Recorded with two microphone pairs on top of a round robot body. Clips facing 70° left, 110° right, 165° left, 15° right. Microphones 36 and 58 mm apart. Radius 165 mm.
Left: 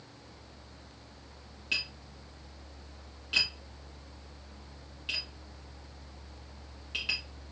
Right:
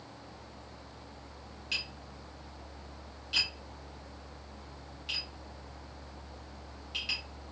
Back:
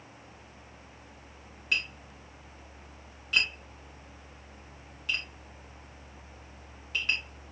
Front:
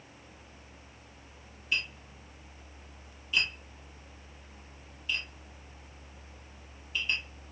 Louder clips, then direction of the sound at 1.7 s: Left 3 dB, back 2 dB; 140° left.